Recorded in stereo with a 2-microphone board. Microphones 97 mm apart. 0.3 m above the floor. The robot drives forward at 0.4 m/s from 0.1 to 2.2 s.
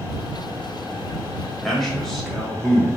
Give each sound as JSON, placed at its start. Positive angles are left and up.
{"t": 1.6, "sound": "a man speaking", "side_deg": 0, "distance_m": 1.0}